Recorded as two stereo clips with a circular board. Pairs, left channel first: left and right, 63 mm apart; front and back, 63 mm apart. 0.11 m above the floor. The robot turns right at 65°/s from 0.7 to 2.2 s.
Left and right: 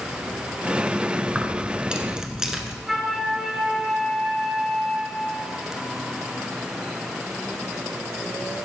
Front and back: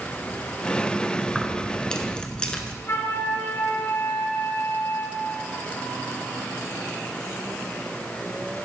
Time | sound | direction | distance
1.3 | keys jangling | 90° right | 0.8 m
2.9 | a flute | 5° right | 0.9 m